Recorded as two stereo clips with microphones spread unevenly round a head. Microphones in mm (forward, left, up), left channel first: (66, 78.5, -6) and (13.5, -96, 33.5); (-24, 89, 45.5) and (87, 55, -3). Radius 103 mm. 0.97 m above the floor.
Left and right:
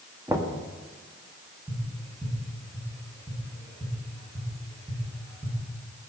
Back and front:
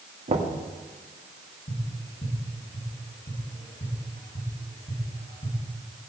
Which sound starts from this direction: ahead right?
Knocking, at 0.3 s.